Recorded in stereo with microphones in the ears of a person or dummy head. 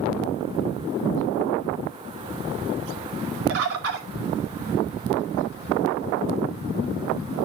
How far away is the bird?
About 2.0 m.